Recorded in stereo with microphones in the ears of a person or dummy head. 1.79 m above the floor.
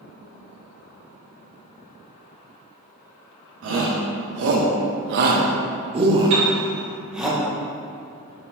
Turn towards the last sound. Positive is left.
turn(degrees=-40)  # may be behind; listen again after turning